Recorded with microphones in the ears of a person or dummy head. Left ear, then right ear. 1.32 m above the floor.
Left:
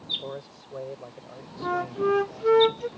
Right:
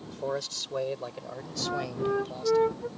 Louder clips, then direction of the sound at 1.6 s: Left 5 dB; 80° left.